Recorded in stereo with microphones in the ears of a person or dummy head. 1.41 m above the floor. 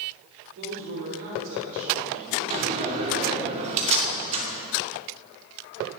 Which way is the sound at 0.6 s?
60° right (ahead or behind).